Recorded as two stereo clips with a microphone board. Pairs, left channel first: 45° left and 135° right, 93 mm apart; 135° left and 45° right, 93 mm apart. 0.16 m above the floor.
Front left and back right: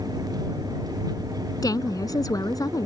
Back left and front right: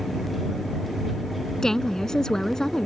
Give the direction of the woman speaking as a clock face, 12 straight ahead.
10 o'clock.